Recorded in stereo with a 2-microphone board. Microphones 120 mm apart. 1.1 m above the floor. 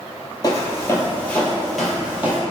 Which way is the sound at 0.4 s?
35° left (ahead or behind).